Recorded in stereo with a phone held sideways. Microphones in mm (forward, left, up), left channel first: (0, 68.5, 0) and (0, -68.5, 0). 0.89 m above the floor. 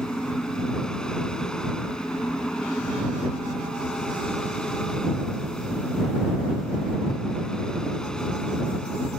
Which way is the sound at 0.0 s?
5° left (ahead or behind).